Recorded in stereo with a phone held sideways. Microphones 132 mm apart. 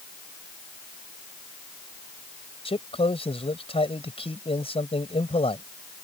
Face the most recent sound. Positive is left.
turn(degrees=45)  # may be behind; listen again after turning